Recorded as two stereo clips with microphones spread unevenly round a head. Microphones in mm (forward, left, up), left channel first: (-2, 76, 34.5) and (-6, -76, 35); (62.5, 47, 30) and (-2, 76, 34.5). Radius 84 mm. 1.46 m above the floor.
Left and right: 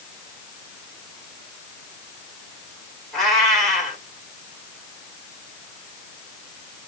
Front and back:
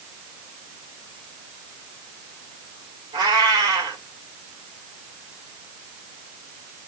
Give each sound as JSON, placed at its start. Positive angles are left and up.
{"t": 3.1, "sound": "a cat meowing", "azimuth_deg": 180, "distance_m": 3.0}